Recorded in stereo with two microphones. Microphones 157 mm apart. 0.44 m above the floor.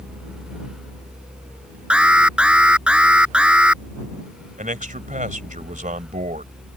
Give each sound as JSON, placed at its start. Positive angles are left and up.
{"t": 1.9, "sound": "an alarm", "side_deg": -5}
{"t": 4.6, "sound": "a man speaking", "side_deg": -55}